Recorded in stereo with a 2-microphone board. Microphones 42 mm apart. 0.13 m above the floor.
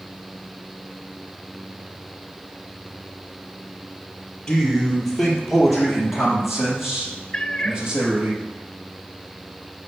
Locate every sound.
4.5 s a man speaking: 15° left (ahead or behind), 4 m; by 8.3 s 15° right (ahead or behind), 5.5 m
7.3 s a cat meowing: 25° left (ahead or behind), 0.7 m